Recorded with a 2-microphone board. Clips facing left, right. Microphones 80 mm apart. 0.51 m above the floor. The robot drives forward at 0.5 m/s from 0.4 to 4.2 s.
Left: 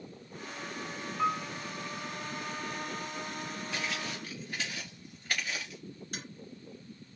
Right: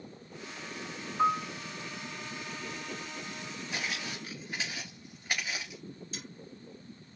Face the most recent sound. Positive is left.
turn(degrees=60)  # may be behind; listen again after turning